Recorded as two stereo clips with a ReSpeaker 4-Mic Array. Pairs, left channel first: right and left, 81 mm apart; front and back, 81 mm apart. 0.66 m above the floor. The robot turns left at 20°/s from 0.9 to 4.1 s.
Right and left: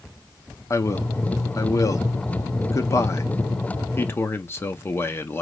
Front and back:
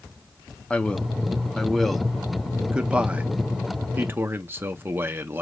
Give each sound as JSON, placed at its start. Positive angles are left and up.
{"t": 0.7, "sound": "a man speaking", "azimuth_deg": -70, "distance_m": 0.7}